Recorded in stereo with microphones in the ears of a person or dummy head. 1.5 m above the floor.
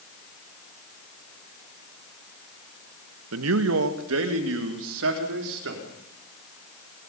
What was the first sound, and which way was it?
A man speaking, 80° right.